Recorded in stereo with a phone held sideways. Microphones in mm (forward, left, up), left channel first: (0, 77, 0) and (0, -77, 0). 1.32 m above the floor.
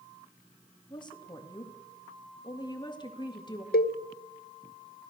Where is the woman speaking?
30° left (ahead or behind), 2.5 m.